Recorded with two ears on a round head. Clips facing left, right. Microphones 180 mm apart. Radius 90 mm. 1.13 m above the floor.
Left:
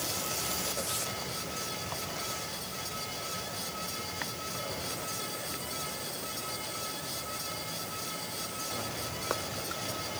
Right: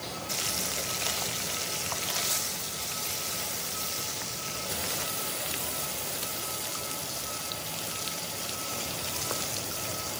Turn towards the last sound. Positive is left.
No sound to turn to.